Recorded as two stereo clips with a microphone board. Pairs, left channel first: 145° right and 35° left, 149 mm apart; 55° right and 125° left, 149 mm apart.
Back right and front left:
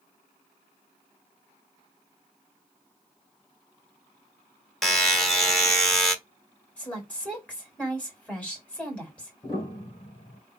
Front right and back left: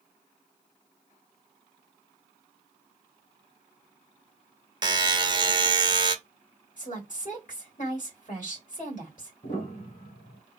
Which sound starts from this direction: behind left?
A buzzer, at 4.8 s.